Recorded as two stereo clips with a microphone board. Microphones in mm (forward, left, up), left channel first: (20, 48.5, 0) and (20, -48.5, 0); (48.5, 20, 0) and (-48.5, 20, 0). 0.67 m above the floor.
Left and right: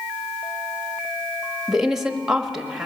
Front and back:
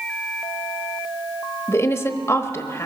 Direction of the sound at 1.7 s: 10° right.